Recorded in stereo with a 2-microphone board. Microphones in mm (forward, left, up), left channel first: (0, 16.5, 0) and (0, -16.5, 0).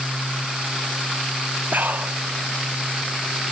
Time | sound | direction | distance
1.7 | breathing | 65° right (ahead or behind) | ?